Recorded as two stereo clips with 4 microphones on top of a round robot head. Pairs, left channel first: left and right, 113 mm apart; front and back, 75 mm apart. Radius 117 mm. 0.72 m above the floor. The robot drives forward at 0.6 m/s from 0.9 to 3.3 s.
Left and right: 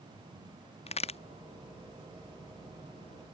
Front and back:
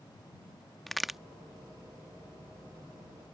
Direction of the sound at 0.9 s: 90° left.